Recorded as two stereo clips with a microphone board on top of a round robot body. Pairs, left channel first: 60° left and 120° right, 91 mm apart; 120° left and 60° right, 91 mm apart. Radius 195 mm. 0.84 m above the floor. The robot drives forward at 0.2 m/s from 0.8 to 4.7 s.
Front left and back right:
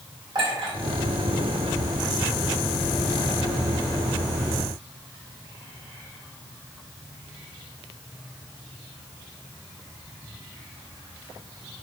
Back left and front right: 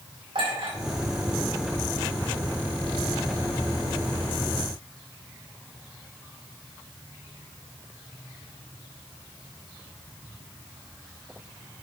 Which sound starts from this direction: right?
A clink, at 0.3 s.